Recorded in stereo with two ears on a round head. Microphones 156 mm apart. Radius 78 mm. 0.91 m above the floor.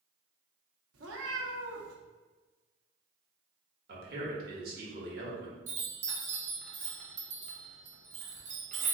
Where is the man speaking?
55° right (ahead or behind), 1.3 m.